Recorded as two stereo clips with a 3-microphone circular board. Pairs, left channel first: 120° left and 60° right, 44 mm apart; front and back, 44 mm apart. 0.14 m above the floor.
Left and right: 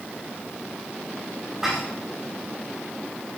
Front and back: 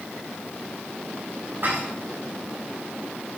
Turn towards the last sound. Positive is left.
turn(degrees=-140)